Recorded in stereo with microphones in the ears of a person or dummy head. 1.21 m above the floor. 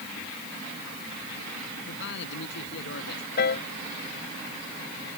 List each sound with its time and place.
1.9 s a man speaking: 65° left (ahead or behind)
3.4 s a piano: 55° left (ahead or behind)